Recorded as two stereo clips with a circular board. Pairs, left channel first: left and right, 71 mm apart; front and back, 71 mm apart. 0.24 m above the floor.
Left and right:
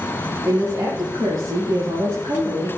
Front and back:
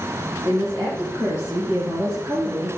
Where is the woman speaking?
125° right, 4.5 m; by 2.7 s 110° right, 6.5 m.